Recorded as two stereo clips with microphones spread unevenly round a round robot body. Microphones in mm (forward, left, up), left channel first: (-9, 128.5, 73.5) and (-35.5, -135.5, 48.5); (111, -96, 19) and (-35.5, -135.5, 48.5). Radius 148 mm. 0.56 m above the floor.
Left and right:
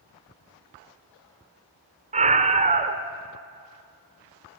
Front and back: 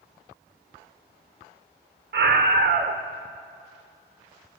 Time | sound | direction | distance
2.1 | a scream | 155° right | 1.7 m